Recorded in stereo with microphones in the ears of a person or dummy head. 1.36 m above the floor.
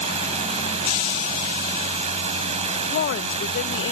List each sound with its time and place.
0.0 s a drone: 40° right (ahead or behind)
2.9 s a woman speaking: 65° left (ahead or behind)